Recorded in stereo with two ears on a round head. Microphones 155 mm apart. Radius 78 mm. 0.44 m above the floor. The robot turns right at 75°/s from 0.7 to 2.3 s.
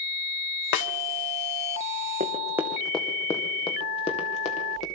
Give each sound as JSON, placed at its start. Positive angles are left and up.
{"t": 0.7, "sound": "a snare drum", "side_deg": 75, "distance_m": 0.7}
{"t": 2.2, "sound": "running footsteps", "side_deg": -40, "distance_m": 1.5}